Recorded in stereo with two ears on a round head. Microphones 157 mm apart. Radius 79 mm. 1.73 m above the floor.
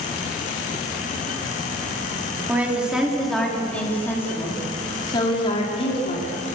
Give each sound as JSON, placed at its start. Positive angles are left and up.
{"t": 2.5, "sound": "a woman speaking", "side_deg": -10, "distance_m": 4.5}